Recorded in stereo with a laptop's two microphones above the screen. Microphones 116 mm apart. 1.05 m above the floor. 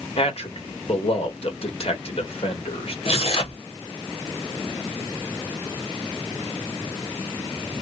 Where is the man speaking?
55° left (ahead or behind), 1.3 m.